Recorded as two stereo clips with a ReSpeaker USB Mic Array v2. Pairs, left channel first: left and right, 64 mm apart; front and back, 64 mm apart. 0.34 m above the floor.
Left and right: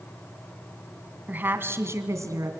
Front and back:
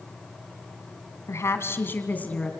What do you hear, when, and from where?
1.3 s a woman speaking: 30° right, 2.5 m; by 2.5 s 70° right, 2.5 m